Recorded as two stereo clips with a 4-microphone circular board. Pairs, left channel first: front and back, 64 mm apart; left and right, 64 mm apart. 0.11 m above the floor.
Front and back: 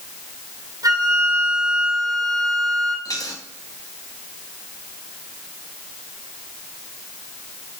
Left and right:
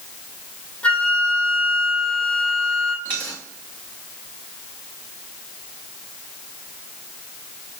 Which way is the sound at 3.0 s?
25° left.